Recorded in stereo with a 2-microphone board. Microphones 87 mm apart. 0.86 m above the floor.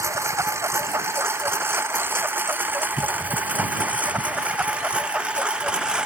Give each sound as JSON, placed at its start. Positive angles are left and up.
{"t": 0.0, "sound": "a lawn mower", "side_deg": -35}